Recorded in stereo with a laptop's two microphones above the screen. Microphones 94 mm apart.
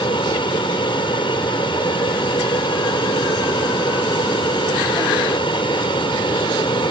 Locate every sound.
0.0 s an aircraft: 60° left (ahead or behind)